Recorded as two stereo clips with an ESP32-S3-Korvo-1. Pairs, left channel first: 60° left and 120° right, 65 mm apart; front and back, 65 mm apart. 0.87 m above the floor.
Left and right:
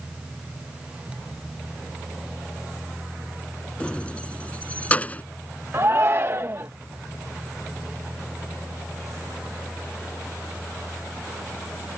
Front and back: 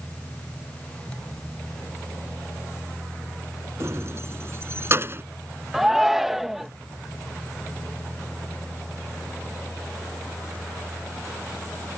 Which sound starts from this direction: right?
A shout, at 5.7 s.